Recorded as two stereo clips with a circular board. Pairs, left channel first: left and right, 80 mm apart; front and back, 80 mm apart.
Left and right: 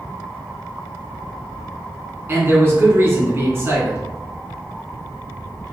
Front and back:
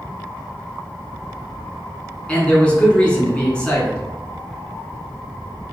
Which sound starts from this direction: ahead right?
A man speaking, at 2.3 s.